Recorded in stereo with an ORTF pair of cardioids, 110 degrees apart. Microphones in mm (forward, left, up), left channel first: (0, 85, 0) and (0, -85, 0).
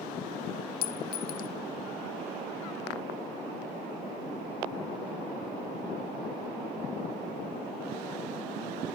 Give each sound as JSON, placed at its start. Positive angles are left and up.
{"t": 0.8, "sound": "a clink", "azimuth_deg": 55, "distance_m": 0.8}